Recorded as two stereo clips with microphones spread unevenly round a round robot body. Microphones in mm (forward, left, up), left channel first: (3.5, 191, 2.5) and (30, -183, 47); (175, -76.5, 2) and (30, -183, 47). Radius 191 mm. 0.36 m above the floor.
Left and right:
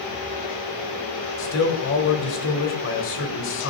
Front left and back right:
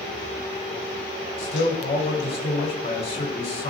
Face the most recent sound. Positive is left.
turn(degrees=60)